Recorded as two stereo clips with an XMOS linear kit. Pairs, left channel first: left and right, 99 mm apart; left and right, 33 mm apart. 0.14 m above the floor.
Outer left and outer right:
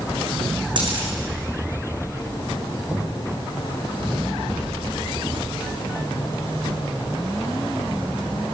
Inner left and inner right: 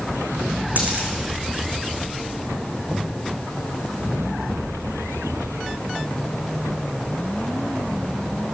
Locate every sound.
0.8 s a dropped coin: 55° right (ahead or behind), 5.5 m
2.9 s knocking: 25° right (ahead or behind), 5 m